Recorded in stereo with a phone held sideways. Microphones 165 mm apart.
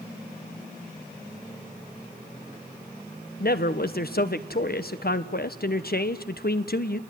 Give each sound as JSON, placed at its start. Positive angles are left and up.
{"t": 3.4, "sound": "a man speaking", "side_deg": 70, "distance_m": 1.3}